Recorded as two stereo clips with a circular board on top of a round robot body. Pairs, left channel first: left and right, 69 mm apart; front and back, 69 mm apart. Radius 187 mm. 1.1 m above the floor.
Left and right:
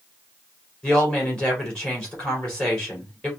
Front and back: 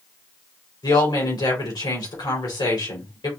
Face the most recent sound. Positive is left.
turn(degrees=15)